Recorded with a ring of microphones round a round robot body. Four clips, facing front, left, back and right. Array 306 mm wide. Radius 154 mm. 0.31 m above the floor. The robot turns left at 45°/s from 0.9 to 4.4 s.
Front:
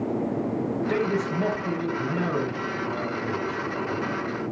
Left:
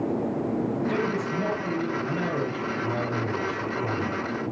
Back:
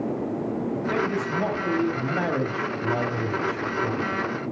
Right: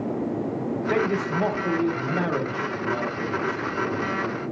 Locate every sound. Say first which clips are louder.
0.9 s a man speaking: right 3 dB, even; 90° right, 2.5 m; by 4.1 s 125° left, 2.5 m